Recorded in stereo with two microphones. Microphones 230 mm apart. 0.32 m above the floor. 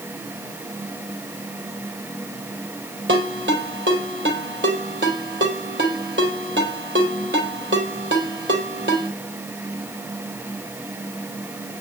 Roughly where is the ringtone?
Right.